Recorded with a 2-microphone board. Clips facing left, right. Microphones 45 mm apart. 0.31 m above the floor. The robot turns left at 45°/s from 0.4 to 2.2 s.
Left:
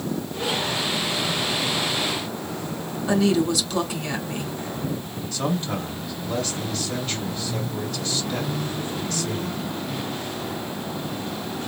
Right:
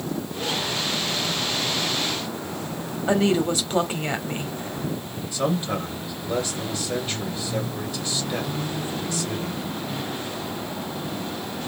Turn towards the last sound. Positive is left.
turn(degrees=-15)  # may be behind; listen again after turning